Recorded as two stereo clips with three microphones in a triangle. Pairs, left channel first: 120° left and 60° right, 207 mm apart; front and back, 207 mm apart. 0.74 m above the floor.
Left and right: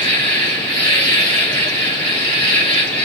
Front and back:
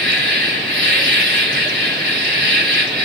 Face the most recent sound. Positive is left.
turn(degrees=180)